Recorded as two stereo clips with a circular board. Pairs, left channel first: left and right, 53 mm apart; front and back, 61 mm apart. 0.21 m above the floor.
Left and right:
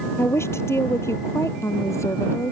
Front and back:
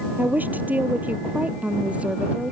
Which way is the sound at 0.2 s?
120° left.